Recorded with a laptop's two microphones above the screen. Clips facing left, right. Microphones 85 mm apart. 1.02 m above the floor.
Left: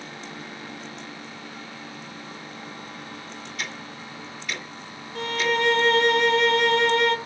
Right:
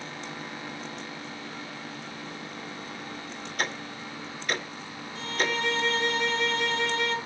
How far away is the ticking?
About 2.5 m.